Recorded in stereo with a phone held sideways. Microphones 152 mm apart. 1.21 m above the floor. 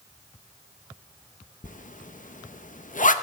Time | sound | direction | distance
1.6 | a zipper | 60° left (ahead or behind) | 0.7 m